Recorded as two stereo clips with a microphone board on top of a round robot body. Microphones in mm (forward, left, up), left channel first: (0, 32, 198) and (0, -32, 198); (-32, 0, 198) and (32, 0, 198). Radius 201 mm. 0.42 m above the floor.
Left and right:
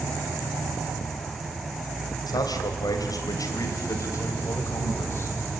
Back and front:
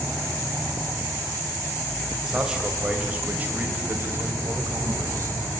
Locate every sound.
2.3 s a man speaking: 80° left, 3 m; by 5.3 s 40° left, 3.5 m